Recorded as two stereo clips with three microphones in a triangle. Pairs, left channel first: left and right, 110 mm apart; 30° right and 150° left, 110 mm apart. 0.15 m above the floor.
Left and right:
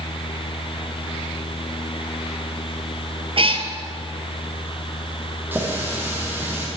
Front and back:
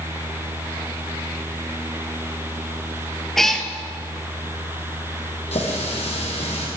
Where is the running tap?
20° right, 4 m.